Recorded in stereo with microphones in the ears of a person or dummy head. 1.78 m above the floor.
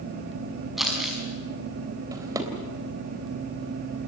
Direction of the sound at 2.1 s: 15° right (ahead or behind).